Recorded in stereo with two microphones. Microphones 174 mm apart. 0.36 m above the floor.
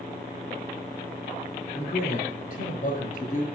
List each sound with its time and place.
1.7 s a man speaking: 55° left (ahead or behind), 6 m